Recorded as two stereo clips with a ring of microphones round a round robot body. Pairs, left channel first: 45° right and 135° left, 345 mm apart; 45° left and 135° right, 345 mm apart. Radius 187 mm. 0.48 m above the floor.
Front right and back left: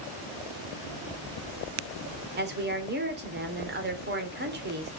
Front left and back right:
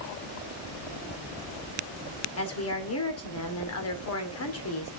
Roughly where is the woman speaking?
Left.